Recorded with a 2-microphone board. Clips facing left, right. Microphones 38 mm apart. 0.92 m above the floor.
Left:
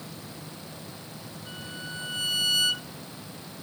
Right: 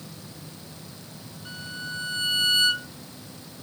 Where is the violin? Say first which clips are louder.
Right 4 dB; 60° right (ahead or behind), 1.9 m.